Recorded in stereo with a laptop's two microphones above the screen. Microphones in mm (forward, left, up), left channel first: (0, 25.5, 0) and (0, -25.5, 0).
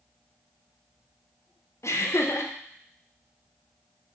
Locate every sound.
1.8 s laughter: 65° left (ahead or behind), 0.5 m